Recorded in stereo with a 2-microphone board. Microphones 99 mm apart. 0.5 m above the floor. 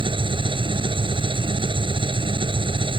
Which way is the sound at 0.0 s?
60° right (ahead or behind).